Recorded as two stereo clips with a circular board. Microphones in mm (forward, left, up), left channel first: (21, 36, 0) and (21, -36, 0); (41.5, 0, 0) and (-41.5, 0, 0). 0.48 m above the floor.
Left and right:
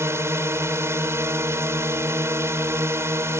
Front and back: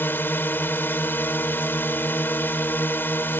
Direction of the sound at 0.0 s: 55° right.